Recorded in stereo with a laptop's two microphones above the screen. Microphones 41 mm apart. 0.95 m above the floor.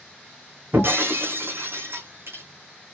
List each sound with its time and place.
0.7 s breaking glass: 60° right (ahead or behind), 3.5 m